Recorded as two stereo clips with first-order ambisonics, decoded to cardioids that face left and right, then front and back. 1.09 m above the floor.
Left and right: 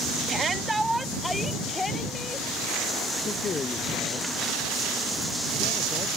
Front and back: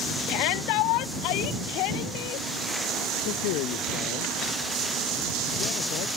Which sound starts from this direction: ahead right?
A shout, at 0.3 s.